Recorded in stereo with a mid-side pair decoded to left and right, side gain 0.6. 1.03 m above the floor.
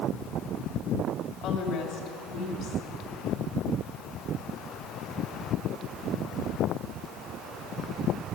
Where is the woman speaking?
60° left, 3.5 m.